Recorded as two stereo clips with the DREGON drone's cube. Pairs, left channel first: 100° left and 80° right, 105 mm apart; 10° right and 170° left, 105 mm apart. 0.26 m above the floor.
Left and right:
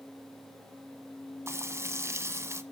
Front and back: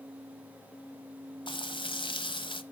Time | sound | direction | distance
1.5 | frying | 25° right | 1.2 m